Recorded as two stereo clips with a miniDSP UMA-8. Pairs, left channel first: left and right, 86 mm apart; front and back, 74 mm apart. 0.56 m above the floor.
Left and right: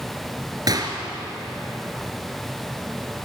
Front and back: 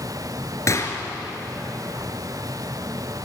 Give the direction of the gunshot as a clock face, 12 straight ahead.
2 o'clock.